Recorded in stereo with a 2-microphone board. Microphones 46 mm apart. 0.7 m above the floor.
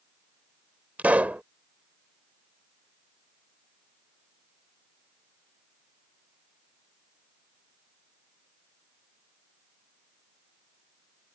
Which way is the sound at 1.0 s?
35° right (ahead or behind).